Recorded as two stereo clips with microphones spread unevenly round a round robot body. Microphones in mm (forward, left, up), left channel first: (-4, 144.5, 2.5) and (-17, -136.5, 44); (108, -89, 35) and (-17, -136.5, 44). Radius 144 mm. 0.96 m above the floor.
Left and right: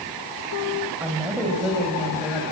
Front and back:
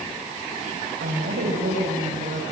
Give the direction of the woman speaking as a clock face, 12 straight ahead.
6 o'clock.